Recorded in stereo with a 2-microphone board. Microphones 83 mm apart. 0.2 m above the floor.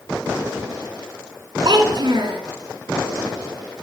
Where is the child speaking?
55° right (ahead or behind), 1.8 m.